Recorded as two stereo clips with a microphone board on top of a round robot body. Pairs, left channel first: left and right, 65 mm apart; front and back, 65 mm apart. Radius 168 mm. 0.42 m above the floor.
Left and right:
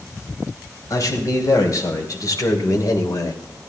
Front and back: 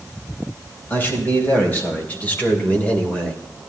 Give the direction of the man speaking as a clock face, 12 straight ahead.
10 o'clock.